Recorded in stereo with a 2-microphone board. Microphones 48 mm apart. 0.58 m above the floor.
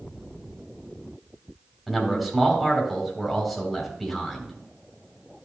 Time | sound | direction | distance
1.9 | a man speaking | centre (ahead or behind) | 3.5 m